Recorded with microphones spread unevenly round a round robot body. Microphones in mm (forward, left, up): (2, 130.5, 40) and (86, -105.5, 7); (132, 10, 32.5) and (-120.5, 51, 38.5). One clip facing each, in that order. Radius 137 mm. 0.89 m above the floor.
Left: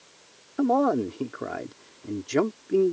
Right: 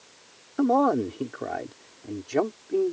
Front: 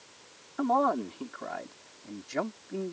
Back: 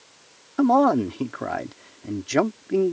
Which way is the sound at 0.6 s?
155° right.